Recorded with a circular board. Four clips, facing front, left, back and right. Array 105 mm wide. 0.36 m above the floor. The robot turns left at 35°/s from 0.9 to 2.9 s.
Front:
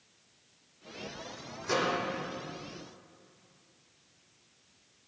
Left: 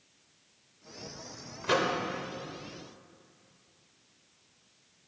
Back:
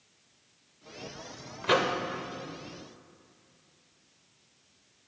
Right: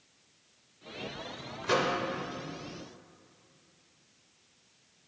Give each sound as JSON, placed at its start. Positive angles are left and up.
{"t": 1.6, "sound": "a microwave", "azimuth_deg": 170, "distance_m": 0.7}